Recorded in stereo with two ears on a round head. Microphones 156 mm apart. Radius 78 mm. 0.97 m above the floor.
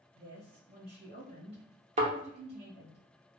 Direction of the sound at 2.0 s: 40° right (ahead or behind).